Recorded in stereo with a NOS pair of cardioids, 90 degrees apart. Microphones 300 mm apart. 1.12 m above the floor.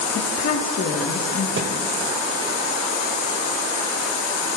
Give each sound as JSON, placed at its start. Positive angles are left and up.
{"t": 0.1, "sound": "a woman speaking", "azimuth_deg": 55, "distance_m": 2.0}
{"t": 1.6, "sound": "a thud", "azimuth_deg": -40, "distance_m": 2.0}